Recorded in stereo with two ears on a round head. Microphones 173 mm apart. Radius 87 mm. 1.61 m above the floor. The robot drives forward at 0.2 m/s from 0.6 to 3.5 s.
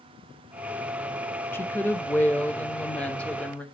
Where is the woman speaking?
10° left (ahead or behind), 0.5 m; by 3.6 s 5° left (ahead or behind), 0.8 m.